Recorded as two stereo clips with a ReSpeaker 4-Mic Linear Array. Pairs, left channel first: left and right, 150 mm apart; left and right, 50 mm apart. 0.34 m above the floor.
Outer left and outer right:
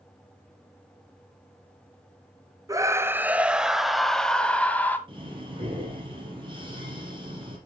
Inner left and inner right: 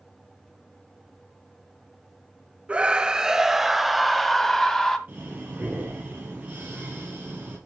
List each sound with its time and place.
2.7 s a scream: 25° right (ahead or behind), 1.1 m; by 5.0 s 10° left (ahead or behind), 1.8 m
5.1 s breathing: 35° right (ahead or behind), 4.5 m